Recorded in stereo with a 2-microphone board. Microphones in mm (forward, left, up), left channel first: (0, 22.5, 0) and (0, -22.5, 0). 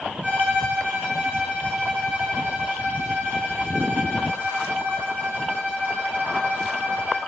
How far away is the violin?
About 1.0 m.